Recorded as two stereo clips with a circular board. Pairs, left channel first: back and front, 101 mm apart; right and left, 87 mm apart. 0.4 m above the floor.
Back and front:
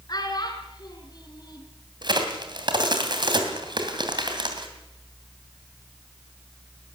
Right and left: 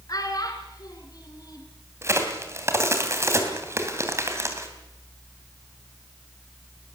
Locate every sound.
0.1 s a child speaking: 130° right, 3.5 m
2.0 s a crack: 35° left, 2.5 m